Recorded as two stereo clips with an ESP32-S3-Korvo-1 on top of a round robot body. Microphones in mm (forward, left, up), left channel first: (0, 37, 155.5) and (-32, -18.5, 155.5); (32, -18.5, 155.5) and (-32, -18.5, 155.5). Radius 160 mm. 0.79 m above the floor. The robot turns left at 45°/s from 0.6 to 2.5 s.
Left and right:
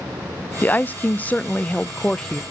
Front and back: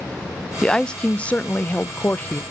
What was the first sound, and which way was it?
A woman speaking, 65° left.